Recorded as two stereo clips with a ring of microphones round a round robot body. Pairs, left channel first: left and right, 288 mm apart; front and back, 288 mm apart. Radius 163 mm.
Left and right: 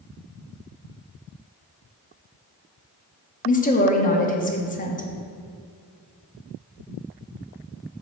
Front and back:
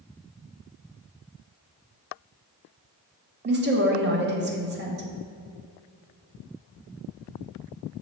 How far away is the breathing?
I don't hear breathing.